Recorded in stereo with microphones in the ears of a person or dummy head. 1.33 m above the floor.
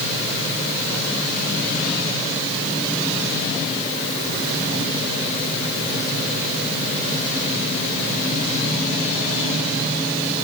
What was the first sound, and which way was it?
Only background noise.